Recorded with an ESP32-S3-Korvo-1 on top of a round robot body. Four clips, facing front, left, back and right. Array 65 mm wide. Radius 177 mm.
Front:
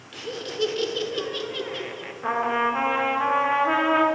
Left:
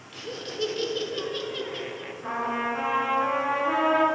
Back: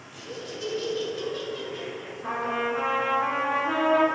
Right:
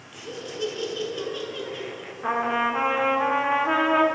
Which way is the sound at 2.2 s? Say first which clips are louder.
Right 5 dB, front 5 dB; 45° right.